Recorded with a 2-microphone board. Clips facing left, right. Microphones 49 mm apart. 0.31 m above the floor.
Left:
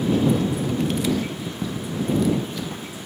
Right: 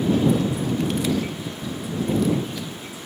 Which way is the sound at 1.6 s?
25° left (ahead or behind).